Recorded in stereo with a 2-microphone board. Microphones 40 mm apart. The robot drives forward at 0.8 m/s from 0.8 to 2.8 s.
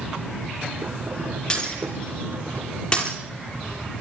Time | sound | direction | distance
1.5 | breaking glass | 20° left (ahead or behind) | 9.5 m